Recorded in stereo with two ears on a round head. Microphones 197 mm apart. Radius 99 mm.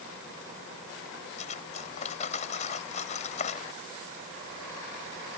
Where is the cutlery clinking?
35° left (ahead or behind).